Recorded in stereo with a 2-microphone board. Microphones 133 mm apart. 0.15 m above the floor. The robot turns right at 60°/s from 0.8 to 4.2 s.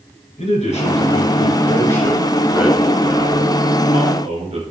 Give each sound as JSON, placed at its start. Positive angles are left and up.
{"t": 0.4, "sound": "a man speaking", "azimuth_deg": 85, "distance_m": 2.5}